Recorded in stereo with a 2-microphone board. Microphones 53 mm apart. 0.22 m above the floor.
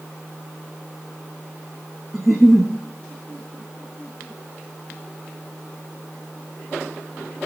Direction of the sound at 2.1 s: Centre (ahead or behind).